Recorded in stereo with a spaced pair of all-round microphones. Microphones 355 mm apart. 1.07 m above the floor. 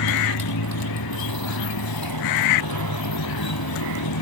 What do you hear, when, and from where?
0.0 s a motorcycle: 85° left